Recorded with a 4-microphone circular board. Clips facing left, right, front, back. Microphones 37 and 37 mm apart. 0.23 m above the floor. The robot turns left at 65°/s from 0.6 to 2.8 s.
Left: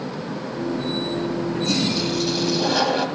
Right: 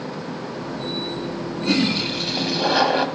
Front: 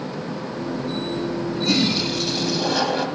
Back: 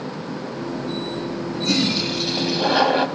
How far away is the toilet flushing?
About 1.0 m.